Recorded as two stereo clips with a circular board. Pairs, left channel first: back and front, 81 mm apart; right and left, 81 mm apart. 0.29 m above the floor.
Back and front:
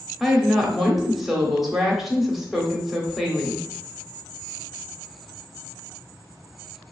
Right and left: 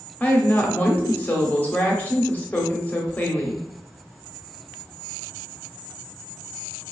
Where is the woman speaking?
85° right, 0.9 m.